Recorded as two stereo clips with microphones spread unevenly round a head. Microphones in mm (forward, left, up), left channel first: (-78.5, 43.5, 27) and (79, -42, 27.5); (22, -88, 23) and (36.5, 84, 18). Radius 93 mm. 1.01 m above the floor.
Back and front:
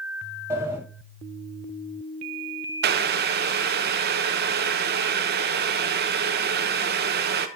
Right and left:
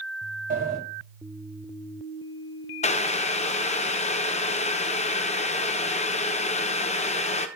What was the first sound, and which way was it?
A sliding door, 50° left.